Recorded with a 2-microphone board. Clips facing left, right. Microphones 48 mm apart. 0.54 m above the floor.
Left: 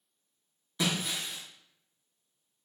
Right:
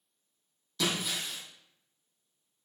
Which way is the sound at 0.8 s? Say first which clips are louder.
Even; 25° left (ahead or behind).